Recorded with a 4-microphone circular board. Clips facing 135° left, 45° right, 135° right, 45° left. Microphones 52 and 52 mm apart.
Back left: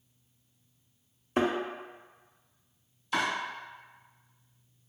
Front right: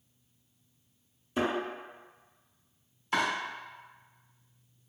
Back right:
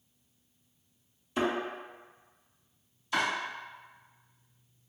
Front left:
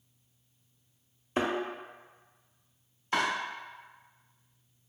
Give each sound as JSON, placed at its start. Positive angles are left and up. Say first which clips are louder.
{"t": 1.4, "sound": "a thud", "louder": "back left 3 dB, even", "azimuth_deg": 95, "distance_m": 0.7}
{"t": 3.1, "sound": "chopping", "louder": "front right 1 dB, front left 1 dB", "azimuth_deg": -5, "distance_m": 1.9}